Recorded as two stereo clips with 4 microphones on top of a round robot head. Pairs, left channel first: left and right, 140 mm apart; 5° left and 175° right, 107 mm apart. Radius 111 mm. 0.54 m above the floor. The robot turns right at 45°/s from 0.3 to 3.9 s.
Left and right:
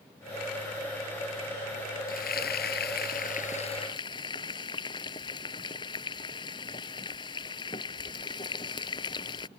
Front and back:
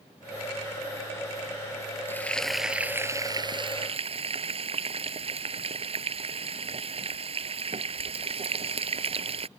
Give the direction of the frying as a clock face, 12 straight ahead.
10 o'clock.